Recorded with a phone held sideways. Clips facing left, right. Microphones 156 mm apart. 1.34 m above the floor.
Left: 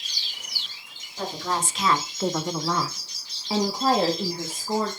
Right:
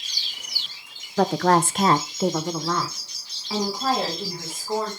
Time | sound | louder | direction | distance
1.2 | a woman speaking | right 10 dB | 80° right | 0.9 m